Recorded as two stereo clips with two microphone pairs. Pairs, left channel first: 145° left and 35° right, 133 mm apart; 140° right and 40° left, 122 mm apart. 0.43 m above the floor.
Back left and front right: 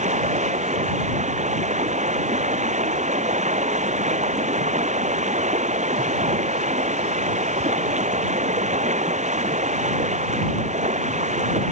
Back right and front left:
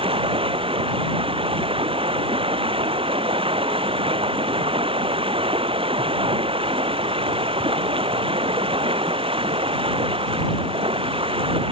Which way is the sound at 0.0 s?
5° right.